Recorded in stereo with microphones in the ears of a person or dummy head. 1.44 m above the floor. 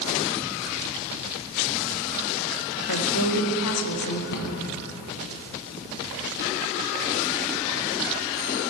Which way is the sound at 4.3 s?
55° left (ahead or behind).